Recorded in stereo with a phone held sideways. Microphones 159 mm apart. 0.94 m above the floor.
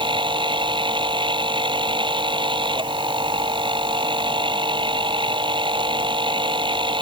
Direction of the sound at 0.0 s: 30° right (ahead or behind).